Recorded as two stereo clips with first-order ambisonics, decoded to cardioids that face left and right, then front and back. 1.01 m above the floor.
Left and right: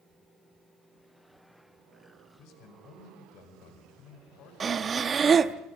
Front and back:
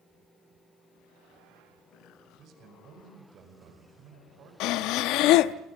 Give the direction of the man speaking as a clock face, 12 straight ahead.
8 o'clock.